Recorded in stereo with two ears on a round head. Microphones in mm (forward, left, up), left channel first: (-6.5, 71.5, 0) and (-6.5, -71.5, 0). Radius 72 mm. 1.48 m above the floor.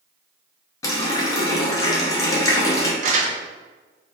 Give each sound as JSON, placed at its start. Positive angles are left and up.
{"t": 0.8, "sound": "a running tap", "side_deg": 20, "distance_m": 0.5}
{"t": 3.0, "sound": "crumpling", "side_deg": -45, "distance_m": 0.5}